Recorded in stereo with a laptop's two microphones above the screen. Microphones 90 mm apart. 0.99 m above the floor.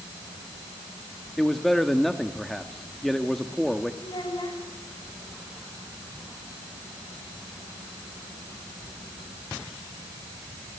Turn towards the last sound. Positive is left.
turn(degrees=65)  # may be behind; listen again after turning